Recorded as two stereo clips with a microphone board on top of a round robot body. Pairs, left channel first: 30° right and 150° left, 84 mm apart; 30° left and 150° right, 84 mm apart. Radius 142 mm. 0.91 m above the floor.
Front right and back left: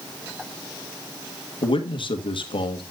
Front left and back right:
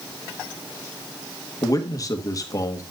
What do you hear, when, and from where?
1.6 s a man speaking: 20° right, 1.8 m